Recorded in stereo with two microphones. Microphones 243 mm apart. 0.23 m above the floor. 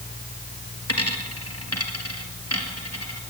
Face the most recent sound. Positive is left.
turn(degrees=80)